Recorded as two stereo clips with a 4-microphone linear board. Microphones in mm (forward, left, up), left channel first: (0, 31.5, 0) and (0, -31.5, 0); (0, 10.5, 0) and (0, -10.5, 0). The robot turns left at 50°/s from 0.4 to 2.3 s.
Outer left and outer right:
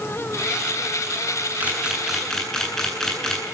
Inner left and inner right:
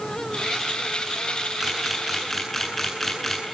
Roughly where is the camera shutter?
Right.